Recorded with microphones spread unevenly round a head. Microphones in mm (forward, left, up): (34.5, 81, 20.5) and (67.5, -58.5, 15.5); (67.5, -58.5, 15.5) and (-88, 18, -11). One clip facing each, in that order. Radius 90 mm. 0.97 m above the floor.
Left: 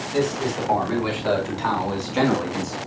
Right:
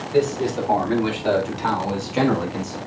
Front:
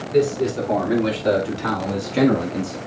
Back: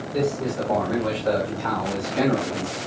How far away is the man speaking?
About 3.5 m.